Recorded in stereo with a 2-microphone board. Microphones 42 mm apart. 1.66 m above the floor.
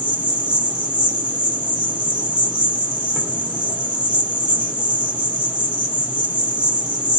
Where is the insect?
25° right (ahead or behind), 1.4 m.